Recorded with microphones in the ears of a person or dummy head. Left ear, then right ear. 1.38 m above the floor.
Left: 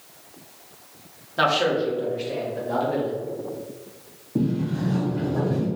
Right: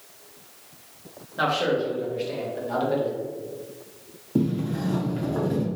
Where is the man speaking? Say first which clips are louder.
Left 3 dB; 30° left (ahead or behind), 1.5 m; by 3.2 s 20° right (ahead or behind), 1.6 m.